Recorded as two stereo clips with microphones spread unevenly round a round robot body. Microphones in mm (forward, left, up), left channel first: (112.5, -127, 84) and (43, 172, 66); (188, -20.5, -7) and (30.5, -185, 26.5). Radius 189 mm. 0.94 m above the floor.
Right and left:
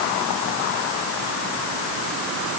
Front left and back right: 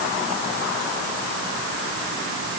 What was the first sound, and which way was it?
Only background noise.